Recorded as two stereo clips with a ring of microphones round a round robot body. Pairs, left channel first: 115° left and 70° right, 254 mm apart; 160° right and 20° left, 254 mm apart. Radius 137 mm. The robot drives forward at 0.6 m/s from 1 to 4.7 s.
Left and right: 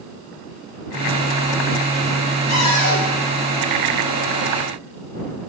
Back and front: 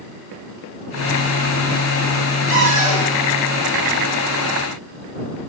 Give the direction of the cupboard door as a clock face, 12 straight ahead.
9 o'clock.